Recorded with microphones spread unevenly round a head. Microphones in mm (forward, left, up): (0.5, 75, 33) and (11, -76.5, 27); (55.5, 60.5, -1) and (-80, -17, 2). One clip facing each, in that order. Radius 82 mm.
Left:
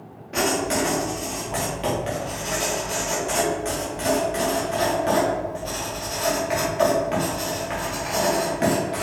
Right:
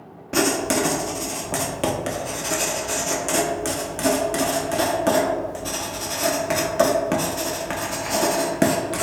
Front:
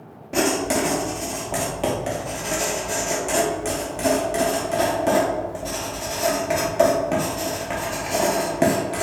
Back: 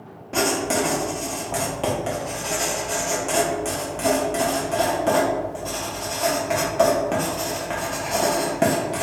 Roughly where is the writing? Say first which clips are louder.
Right 2 dB, front 1 dB; ahead right.